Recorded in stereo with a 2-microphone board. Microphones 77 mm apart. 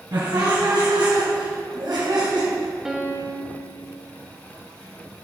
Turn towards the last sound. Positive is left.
turn(degrees=-5)  # may be behind; listen again after turning